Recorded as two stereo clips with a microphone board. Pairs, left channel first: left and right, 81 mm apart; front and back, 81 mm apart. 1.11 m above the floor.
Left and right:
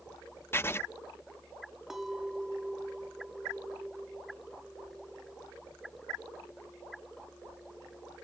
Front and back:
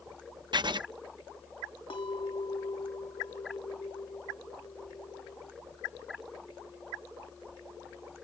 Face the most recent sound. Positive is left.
turn(degrees=-5)